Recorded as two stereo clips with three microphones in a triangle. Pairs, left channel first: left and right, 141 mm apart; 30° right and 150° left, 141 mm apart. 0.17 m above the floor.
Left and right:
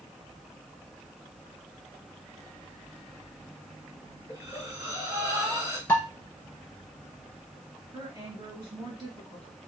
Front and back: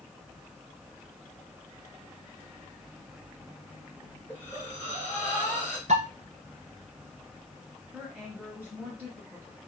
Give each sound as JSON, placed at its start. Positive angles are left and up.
{"t": 4.3, "sound": "breathing", "azimuth_deg": -140, "distance_m": 2.5}
{"t": 5.9, "sound": "dishes clattering", "azimuth_deg": 165, "distance_m": 1.9}
{"t": 7.9, "sound": "a woman speaking", "azimuth_deg": -140, "distance_m": 2.5}